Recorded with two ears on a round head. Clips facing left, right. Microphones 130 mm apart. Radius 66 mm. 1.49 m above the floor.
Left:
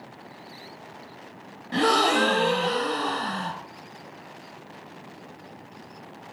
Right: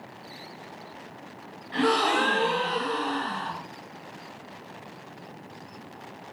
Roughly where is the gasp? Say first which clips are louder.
Left 2 dB; left.